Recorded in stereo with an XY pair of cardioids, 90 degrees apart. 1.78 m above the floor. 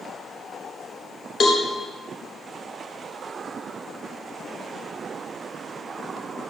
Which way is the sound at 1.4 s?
60° left.